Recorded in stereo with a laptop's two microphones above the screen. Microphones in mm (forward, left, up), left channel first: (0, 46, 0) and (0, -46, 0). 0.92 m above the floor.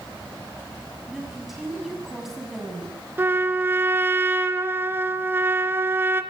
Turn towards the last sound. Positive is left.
turn(degrees=-25)  # may be behind; listen again after turning